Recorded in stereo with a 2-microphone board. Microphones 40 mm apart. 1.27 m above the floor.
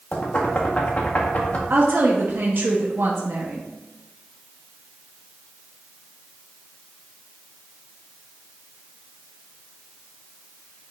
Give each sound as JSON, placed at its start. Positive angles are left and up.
{"t": 0.1, "sound": "knocking", "side_deg": 40, "distance_m": 1.3}
{"t": 1.7, "sound": "a woman speaking", "side_deg": -60, "distance_m": 1.0}